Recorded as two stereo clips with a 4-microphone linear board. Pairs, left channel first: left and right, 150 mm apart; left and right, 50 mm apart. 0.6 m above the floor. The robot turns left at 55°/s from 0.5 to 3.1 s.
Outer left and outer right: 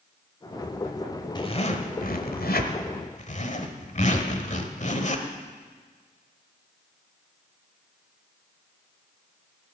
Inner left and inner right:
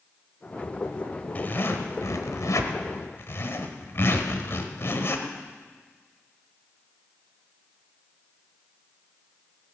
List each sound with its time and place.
1.4 s a zipper: 150° left, 1.1 m; by 5.3 s 55° left, 1.1 m